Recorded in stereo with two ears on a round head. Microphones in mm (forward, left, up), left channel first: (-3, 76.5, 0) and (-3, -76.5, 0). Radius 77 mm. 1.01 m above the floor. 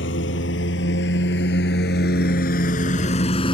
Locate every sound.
0.0 s a lawn mower: 80° left; by 3.5 s 30° left (ahead or behind)